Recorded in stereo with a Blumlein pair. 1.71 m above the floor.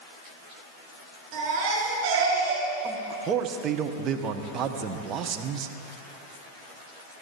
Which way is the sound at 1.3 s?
35° right.